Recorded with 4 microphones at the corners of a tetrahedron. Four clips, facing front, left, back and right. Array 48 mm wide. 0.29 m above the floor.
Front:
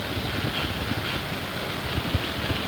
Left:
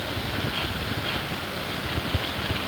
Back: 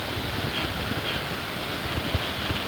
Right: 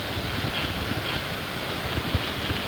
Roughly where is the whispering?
No whispering in this recording.